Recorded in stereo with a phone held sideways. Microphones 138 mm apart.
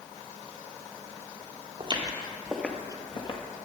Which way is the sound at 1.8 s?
40° right (ahead or behind).